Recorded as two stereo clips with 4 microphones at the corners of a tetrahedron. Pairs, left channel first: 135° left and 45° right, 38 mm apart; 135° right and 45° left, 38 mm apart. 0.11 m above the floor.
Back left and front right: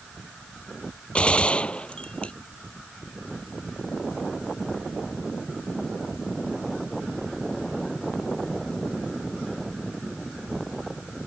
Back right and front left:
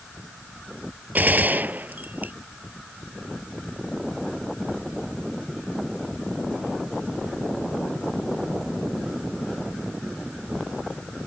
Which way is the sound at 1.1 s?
75° left.